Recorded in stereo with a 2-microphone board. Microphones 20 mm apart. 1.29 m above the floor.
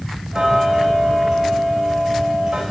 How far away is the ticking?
About 1.4 m.